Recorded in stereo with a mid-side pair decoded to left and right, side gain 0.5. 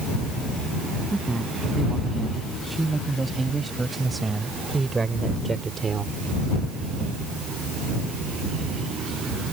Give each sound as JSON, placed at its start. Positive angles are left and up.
{"t": 1.1, "sound": "a man speaking", "azimuth_deg": -15}